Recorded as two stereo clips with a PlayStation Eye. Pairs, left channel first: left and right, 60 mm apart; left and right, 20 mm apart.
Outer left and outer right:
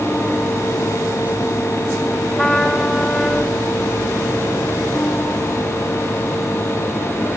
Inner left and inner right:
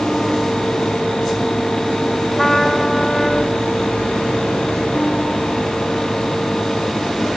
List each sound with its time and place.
2.3 s a trumpet: 5° left (ahead or behind), 1.4 m